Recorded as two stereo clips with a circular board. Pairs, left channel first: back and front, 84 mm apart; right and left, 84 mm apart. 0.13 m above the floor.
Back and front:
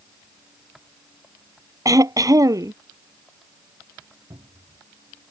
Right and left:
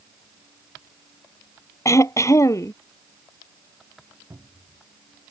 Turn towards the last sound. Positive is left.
turn(degrees=40)